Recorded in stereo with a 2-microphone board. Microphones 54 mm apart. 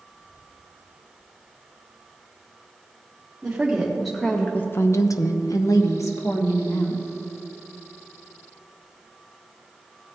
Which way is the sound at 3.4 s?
15° right (ahead or behind).